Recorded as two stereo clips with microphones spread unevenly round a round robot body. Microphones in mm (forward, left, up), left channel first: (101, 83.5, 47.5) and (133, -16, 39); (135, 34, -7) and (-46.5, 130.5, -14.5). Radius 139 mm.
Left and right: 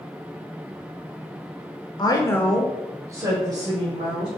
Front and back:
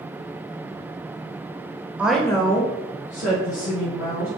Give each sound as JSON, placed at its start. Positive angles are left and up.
{"t": 2.0, "sound": "a woman speaking", "azimuth_deg": 75, "distance_m": 1.2}